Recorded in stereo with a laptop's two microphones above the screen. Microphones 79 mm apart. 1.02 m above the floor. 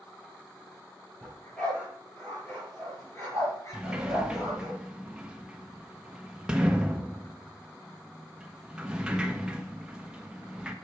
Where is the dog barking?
15° left (ahead or behind), 5 m; by 4.7 s 50° left (ahead or behind), 4 m.